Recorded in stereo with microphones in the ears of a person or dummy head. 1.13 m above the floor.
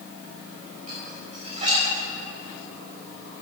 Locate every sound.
0.9 s dishes clattering: 30° right (ahead or behind), 4 m